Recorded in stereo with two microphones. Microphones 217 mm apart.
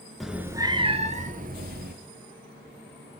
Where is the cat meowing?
Centre (ahead or behind), 0.7 m; by 1.9 s 50° right (ahead or behind), 1.2 m.